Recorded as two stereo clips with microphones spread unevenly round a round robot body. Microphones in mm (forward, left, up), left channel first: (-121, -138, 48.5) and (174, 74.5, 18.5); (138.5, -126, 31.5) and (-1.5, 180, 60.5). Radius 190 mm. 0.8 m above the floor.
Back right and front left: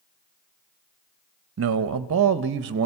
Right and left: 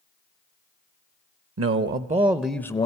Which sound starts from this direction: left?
A man speaking, at 1.6 s.